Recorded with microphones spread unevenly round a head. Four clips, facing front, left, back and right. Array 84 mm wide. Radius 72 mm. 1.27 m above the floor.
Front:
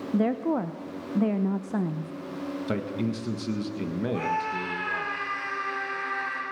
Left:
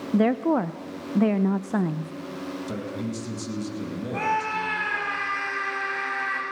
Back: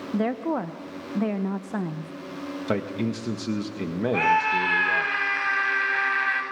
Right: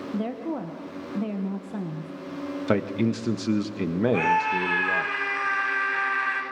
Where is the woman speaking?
130° left, 0.9 m.